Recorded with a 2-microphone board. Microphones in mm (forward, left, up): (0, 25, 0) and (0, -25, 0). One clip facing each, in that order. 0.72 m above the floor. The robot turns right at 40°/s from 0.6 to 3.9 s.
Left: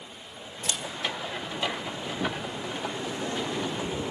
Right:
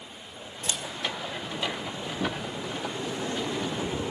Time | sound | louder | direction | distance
0.7 | a camera shutter | left 1 dB | 80° left | 2.5 m